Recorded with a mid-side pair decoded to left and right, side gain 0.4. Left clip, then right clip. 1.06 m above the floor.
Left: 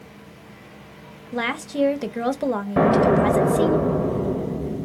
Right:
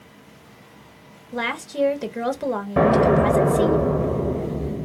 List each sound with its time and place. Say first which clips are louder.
1.3 s a woman speaking: even; 10° left, 0.6 m
2.8 s an explosion: right 1 dB; 5° right, 0.6 m